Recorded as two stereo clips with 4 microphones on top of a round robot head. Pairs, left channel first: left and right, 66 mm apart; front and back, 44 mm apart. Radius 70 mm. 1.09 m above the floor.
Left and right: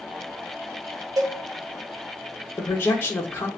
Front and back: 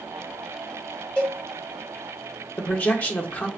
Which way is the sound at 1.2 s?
70° right.